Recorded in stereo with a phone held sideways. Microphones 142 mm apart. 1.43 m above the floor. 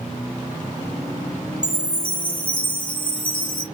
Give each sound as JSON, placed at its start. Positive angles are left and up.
{"t": 1.6, "sound": "a chime", "side_deg": 35, "distance_m": 0.7}